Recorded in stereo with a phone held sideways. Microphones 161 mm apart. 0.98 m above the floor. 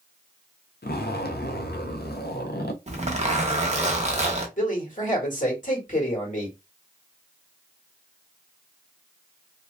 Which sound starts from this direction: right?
A zipper, at 2.9 s.